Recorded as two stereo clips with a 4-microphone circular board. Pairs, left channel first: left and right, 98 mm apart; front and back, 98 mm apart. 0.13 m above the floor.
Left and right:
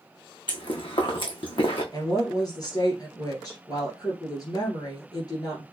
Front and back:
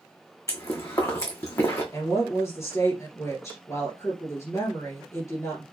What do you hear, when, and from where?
0.5 s chewing: 55° left, 1.7 m
1.9 s a woman speaking: 55° left, 2 m